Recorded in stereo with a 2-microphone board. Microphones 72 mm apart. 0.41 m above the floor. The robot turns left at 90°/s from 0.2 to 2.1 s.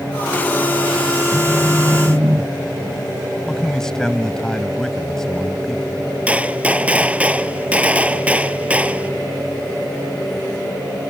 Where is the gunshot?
15° right (ahead or behind).